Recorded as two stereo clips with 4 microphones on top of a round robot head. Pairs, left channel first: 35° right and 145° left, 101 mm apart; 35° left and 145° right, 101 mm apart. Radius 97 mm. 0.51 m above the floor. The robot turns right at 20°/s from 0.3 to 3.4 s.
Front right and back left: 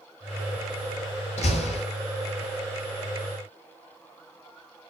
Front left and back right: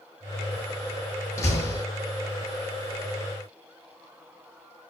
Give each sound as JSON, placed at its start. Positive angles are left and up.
{"t": 1.4, "sound": "a door slam", "azimuth_deg": -25, "distance_m": 6.0}